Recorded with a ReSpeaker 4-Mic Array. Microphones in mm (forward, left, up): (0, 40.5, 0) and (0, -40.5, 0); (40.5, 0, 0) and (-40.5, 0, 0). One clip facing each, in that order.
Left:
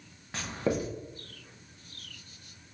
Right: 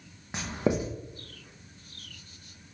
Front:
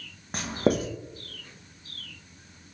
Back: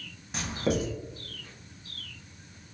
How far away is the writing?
About 0.6 m.